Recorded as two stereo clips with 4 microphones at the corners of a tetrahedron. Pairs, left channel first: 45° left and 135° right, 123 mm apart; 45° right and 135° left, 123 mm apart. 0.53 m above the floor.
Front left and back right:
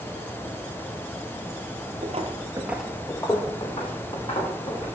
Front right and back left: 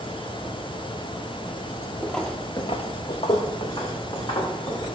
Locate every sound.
2.0 s footsteps: 135° right, 1.1 m; by 4.8 s 10° left, 3.5 m